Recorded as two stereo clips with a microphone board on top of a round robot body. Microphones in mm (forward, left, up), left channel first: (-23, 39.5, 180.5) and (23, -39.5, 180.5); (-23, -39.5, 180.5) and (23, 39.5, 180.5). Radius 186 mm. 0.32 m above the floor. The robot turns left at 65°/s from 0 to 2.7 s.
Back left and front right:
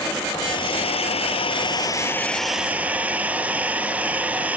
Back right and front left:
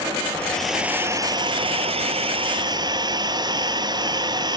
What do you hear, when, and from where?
0.3 s a hair dryer: 170° left; by 4.6 s 15° left